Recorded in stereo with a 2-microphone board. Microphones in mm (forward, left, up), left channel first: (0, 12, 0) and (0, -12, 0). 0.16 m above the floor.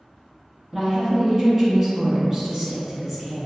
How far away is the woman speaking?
About 1.0 m.